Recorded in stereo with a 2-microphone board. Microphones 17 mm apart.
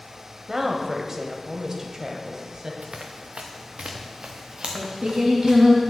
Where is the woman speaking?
25° right (ahead or behind), 1.1 m; by 2.7 s 35° right (ahead or behind), 1.4 m.